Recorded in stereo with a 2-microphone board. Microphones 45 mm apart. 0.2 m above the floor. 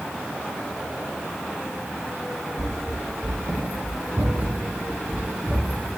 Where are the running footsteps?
75° right (ahead or behind), 0.8 m; by 5.9 s 45° right (ahead or behind), 3 m.